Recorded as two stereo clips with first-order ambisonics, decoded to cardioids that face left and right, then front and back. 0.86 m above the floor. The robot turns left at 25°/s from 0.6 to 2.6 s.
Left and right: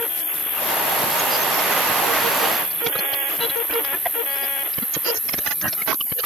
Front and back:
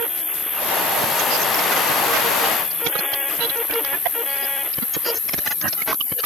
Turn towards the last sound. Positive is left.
turn(degrees=-15)